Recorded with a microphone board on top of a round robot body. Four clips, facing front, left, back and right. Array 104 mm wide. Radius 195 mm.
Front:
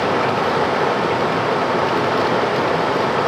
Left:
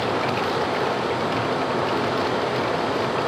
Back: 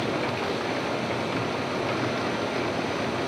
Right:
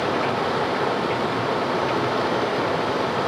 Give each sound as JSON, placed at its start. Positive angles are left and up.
{"t": 0.0, "sound": "running water", "azimuth_deg": -5, "distance_m": 0.8}